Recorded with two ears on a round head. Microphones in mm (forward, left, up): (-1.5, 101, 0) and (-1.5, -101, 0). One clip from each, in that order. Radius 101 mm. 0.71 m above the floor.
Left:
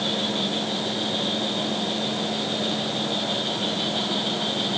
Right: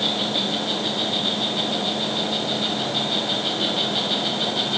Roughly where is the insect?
Right.